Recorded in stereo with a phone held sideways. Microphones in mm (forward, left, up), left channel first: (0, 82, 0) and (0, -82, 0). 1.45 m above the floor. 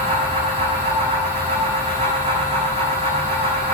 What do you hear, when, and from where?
0.0 s a fan: 40° right (ahead or behind), 5.5 m